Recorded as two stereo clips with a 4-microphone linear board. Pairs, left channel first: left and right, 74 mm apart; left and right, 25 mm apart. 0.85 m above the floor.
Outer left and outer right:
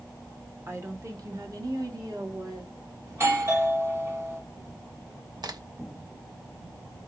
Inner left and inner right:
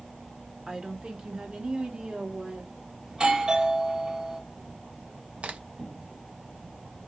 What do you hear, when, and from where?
0.7 s a woman speaking: 35° right (ahead or behind), 1.1 m; by 2.7 s 65° right (ahead or behind), 1.9 m
3.1 s a doorbell: 40° right (ahead or behind), 1.8 m
5.4 s a crack: 65° right (ahead or behind), 0.8 m